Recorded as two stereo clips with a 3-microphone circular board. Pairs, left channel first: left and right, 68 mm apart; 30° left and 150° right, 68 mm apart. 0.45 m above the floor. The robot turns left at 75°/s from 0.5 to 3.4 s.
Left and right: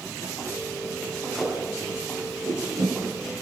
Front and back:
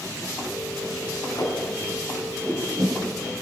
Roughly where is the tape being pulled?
Ahead.